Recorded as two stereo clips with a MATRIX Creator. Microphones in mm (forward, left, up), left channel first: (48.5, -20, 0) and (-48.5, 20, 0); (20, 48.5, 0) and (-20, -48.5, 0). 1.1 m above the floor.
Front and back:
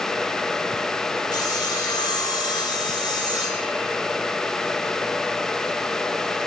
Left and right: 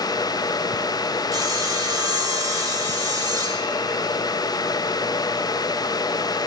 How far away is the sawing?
About 1.4 m.